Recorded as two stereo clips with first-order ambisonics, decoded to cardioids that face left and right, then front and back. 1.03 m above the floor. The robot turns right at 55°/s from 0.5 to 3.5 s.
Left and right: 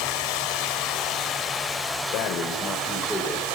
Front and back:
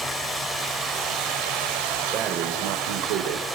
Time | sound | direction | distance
0.0 | running water | 100° left | 5 m
2.1 | breathing | 120° left | 3 m